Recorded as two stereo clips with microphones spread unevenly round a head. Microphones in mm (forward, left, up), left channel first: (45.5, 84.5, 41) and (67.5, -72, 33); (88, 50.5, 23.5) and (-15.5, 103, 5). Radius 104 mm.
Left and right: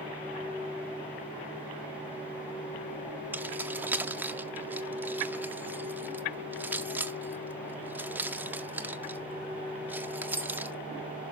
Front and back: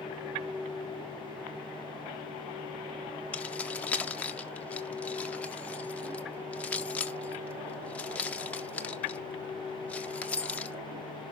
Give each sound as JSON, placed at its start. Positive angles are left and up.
{"t": 3.3, "sound": "keys jangling", "azimuth_deg": -15, "distance_m": 0.6}